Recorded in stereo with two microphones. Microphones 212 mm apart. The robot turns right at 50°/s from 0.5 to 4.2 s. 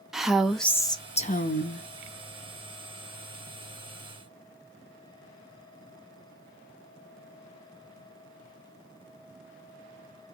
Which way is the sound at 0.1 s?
Straight ahead.